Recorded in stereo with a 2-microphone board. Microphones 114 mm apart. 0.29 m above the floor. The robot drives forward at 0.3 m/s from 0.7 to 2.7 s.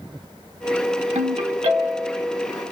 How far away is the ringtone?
About 0.7 m.